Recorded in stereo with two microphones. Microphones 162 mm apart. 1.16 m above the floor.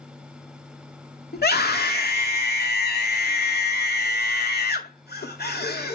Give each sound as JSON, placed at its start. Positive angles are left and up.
{"t": 1.3, "sound": "a scream", "side_deg": 85, "distance_m": 2.5}